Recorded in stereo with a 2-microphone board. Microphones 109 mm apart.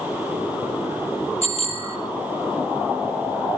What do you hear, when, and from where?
1.4 s a bicycle bell: 75° left (ahead or behind), 3 m